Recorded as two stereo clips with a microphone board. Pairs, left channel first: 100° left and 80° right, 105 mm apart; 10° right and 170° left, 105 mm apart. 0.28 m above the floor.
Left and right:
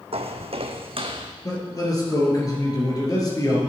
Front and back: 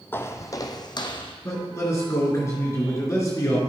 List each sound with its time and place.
0.1 s footsteps: 80° right, 0.7 m; by 1.3 s 45° right, 1.1 m
1.4 s a man speaking: 50° left, 3.5 m